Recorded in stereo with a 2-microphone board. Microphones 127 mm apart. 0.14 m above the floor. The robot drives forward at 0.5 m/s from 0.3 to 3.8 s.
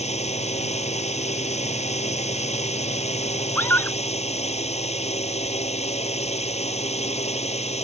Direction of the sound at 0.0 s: 65° left (ahead or behind).